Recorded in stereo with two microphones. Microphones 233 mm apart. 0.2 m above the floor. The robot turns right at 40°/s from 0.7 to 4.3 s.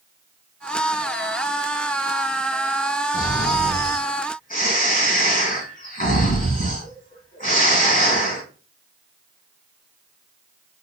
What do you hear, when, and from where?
3.1 s snoring: 75° left, 1.7 m; by 8.4 s 125° left, 1.7 m